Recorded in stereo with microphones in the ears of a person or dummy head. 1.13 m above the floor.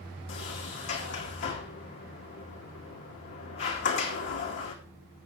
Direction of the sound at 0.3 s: 55° left (ahead or behind).